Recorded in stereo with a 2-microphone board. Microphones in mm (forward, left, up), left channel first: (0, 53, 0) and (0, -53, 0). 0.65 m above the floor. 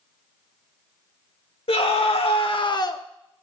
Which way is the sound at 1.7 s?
70° left (ahead or behind).